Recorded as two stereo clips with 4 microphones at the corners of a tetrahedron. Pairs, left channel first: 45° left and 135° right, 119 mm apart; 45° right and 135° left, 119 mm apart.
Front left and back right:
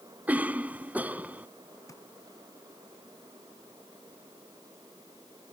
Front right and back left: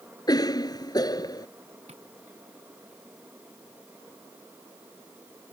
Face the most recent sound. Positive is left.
turn(degrees=110)